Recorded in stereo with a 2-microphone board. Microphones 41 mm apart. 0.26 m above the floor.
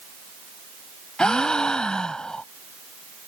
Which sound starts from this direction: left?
A gasp, at 1.2 s.